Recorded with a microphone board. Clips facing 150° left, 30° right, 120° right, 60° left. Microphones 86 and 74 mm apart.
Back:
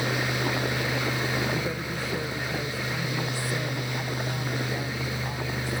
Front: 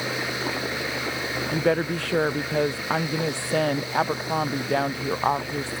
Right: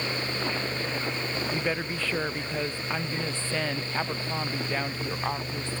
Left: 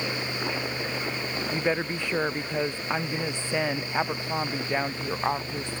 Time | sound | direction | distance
1.5 | a woman speaking | 15° right | ?